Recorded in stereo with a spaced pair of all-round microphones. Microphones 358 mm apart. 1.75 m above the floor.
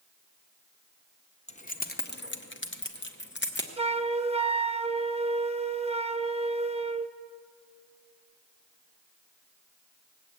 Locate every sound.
1.5 s keys jangling: 20° left (ahead or behind), 0.8 m; by 3.7 s 30° left (ahead or behind), 1.3 m
3.8 s a flute: 20° right (ahead or behind), 0.5 m